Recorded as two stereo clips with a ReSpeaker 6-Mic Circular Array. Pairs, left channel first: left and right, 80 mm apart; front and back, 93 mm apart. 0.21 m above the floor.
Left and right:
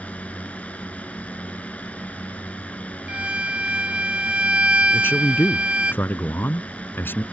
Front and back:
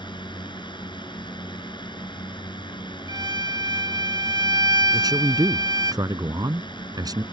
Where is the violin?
160° right.